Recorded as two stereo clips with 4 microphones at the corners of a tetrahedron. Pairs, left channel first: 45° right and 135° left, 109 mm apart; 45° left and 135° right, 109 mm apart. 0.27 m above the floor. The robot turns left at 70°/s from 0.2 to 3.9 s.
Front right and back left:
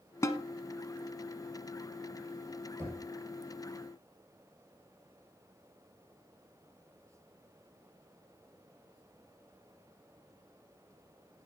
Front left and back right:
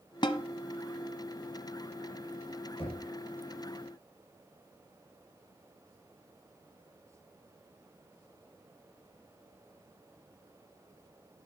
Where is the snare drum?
10° left, 1.1 m; by 0.4 s 5° right, 1.1 m.